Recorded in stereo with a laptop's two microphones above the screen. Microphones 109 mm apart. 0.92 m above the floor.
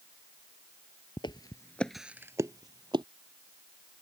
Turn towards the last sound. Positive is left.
turn(degrees=-45)  # may be behind; listen again after turning